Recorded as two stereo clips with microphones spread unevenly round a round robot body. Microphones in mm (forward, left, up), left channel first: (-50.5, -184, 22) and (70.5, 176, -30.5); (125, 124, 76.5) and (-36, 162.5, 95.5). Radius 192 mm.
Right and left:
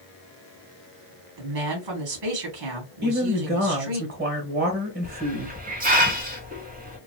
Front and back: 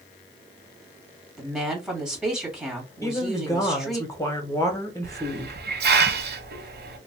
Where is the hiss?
140° left, 0.9 m.